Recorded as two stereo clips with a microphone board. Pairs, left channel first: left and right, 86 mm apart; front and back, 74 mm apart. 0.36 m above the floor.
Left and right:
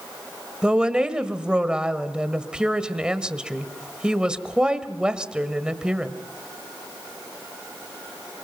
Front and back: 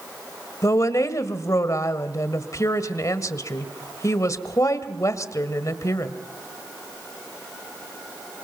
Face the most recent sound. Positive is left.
turn(degrees=-15)